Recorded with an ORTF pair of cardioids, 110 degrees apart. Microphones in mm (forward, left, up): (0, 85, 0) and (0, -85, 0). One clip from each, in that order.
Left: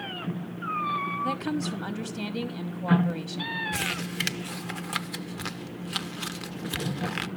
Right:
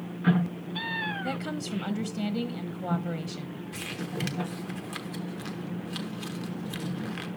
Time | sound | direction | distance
1.2 | a woman speaking | 10° right | 1.3 m
3.7 | crumpling | 40° left | 0.7 m